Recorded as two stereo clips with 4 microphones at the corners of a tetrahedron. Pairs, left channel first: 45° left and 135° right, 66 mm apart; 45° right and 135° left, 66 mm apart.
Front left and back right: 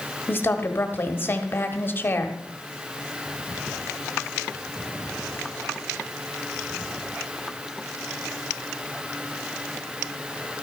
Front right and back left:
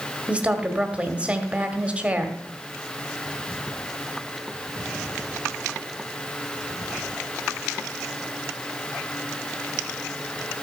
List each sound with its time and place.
0.3 s a woman speaking: 80° left, 1.4 m